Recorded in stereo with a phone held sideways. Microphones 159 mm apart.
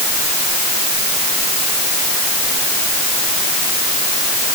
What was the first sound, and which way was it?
Only background noise.